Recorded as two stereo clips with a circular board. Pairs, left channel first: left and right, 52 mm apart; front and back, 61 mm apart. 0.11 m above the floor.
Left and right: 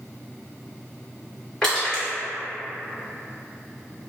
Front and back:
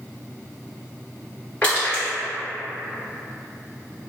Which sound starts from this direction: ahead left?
Crushing, at 1.6 s.